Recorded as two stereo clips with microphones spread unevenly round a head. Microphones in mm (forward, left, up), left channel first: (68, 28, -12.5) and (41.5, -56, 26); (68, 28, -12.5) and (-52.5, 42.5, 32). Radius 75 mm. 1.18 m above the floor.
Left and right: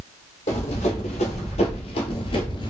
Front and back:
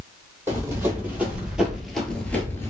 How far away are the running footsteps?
About 2 m.